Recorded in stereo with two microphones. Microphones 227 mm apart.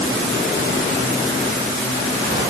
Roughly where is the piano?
I don't hear a piano.